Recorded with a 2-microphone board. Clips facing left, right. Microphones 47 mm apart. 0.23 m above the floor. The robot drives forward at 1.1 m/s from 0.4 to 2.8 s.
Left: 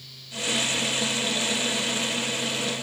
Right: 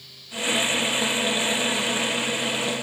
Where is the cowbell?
I don't hear a cowbell.